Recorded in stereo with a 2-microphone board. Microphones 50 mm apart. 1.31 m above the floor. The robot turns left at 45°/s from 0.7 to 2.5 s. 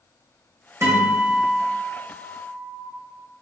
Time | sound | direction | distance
0.8 | a guitar | 85° right | 1.6 m